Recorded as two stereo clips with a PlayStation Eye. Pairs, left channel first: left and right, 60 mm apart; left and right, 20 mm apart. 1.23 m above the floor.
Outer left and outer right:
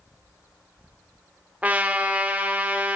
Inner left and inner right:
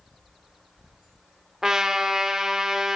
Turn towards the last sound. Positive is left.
turn(degrees=-25)  # may be behind; listen again after turning